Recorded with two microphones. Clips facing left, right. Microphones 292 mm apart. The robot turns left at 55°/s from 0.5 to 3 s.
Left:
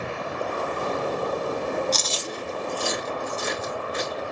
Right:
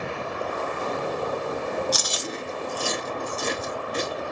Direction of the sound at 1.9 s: 10° right (ahead or behind).